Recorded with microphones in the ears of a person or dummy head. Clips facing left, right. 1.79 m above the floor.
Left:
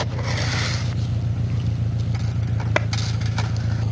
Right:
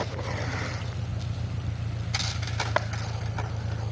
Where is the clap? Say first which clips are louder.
Left 4 dB; 40° left (ahead or behind).